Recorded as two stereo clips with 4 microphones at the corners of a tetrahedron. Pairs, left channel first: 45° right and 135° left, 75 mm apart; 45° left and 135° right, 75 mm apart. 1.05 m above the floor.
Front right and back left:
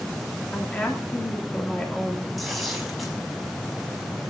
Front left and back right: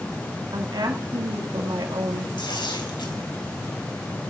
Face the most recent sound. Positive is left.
turn(degrees=45)